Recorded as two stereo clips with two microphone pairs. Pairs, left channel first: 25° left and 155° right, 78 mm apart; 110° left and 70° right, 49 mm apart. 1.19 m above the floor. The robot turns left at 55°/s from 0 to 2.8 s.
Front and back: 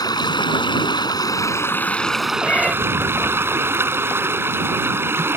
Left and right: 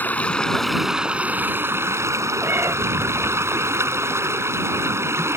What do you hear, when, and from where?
0.0 s running water: 60° left; by 5.4 s 95° right
2.4 s a cat meowing: 35° right; by 2.8 s 55° right